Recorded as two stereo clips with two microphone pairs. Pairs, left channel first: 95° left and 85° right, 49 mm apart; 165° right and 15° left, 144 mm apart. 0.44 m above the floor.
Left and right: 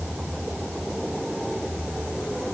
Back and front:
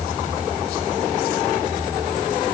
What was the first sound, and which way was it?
Only background noise.